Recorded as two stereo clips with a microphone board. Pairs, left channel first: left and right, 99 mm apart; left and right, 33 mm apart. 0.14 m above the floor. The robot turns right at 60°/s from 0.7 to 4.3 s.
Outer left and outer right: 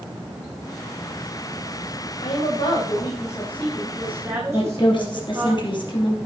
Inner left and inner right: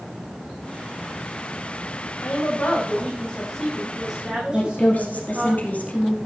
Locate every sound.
2.2 s a woman speaking: 80° left, 7 m; by 5.5 s 150° right, 7 m
4.5 s a woman speaking: 55° left (ahead or behind), 4 m